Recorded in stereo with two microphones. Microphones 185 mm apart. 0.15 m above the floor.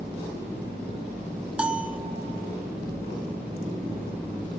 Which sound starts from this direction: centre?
A bell, at 1.6 s.